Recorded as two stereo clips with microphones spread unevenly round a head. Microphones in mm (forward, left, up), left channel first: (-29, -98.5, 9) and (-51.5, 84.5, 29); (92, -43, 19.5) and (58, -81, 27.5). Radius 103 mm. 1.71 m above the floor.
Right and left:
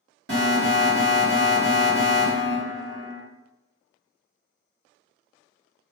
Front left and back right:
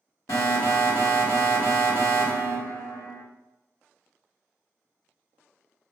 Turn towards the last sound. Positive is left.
turn(degrees=65)